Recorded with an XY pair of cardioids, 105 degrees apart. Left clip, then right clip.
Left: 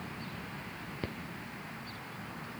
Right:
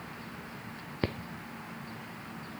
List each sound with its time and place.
Only background noise.